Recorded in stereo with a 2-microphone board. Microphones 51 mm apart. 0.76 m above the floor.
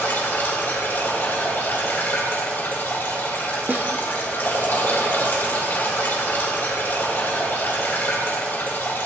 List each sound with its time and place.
0.0 s running water: 45° left (ahead or behind), 2 m
3.7 s a snare drum: 40° right (ahead or behind), 0.7 m